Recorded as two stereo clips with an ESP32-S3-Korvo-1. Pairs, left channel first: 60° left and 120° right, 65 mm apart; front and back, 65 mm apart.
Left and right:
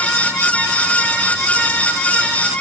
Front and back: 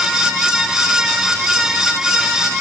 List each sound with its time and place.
Only background noise.